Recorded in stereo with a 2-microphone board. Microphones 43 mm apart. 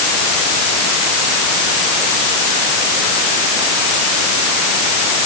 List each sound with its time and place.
Only background noise.